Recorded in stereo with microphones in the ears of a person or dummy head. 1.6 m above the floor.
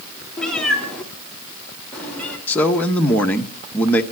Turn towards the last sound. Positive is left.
turn(degrees=15)  # may be behind; listen again after turning